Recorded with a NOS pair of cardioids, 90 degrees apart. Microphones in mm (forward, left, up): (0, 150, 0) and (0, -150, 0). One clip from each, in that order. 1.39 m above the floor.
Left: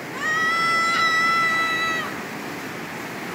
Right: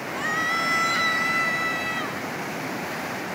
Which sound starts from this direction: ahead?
A scream, at 0.1 s.